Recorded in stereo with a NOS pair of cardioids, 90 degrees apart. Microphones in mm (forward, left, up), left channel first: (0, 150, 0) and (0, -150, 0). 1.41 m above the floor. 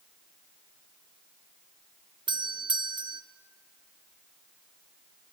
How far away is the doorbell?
About 1.0 m.